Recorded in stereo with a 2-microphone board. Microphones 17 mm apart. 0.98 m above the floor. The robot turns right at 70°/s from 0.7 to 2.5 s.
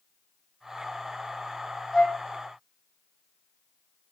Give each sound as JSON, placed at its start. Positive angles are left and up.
{"t": 1.9, "sound": "a flute", "side_deg": 35, "distance_m": 1.7}